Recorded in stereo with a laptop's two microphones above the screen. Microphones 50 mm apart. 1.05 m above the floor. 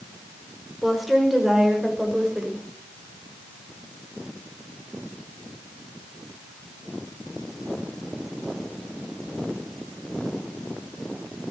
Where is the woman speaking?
5° right (ahead or behind), 4.5 m; by 2.6 s 15° right (ahead or behind), 6 m.